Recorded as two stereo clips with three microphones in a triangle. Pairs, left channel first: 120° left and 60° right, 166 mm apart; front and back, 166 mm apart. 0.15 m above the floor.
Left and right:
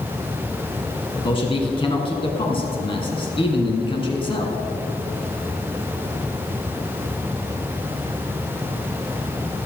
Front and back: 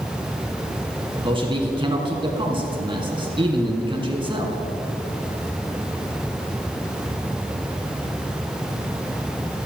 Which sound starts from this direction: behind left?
A man speaking, at 1.2 s.